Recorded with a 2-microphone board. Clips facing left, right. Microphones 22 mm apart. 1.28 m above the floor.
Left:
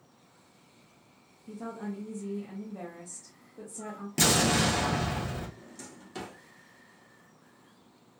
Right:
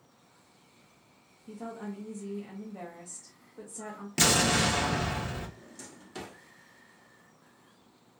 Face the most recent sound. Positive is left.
turn(degrees=5)  # may be behind; listen again after turning